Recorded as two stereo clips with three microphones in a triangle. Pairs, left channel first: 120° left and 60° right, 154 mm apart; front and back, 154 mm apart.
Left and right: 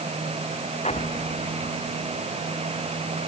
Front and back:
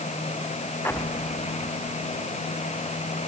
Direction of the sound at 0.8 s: 75° left.